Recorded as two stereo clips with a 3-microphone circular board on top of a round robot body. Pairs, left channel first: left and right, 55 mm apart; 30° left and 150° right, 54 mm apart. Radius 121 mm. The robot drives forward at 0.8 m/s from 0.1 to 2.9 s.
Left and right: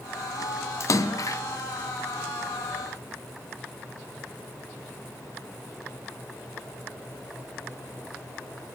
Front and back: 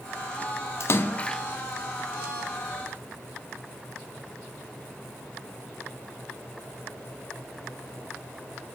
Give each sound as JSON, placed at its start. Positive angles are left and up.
{"t": 0.8, "sound": "a splash", "azimuth_deg": 60, "distance_m": 0.6}